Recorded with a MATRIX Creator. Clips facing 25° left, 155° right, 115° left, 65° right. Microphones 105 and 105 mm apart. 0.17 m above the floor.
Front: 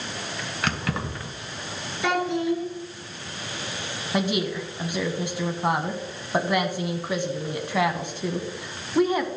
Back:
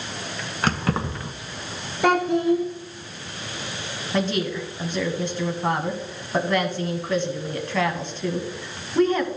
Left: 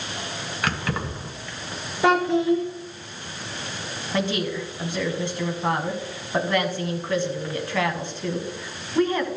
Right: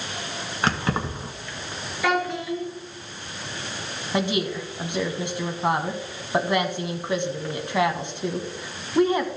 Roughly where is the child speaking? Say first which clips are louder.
Back 5 dB, left 6 dB; behind.